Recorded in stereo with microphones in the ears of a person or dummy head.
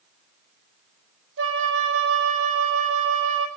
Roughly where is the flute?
Right.